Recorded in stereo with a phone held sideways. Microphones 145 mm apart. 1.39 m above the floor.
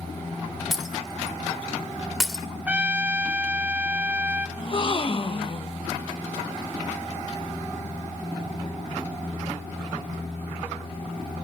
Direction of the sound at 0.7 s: Centre (ahead or behind).